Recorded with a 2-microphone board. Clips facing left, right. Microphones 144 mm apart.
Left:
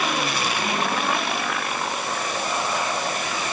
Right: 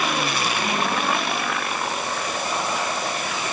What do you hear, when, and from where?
Only background noise.